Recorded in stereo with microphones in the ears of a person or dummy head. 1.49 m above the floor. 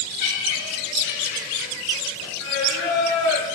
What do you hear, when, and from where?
0.2 s laughter: 60° left (ahead or behind), 7.5 m; by 2.3 s 65° left (ahead or behind), 6.5 m
2.4 s singing: 80° left, 8.5 m